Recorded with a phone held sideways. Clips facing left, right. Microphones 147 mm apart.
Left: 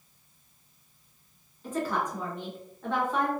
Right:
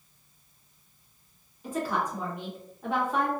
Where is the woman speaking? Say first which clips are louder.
Even; 10° right (ahead or behind), 1.3 m.